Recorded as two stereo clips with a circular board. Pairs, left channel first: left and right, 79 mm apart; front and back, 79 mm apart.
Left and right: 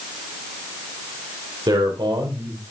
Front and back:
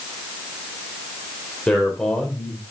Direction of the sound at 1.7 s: 80° right.